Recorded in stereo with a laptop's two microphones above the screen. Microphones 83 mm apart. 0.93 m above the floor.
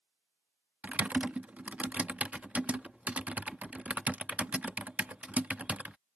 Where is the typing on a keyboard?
15° right (ahead or behind).